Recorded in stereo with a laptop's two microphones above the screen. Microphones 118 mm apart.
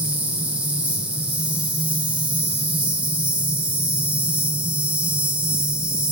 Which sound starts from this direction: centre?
An insect, at 0.0 s.